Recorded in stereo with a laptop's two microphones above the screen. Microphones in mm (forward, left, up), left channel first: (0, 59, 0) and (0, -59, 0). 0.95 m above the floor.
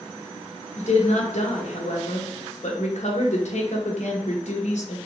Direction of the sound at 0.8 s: 70° left (ahead or behind).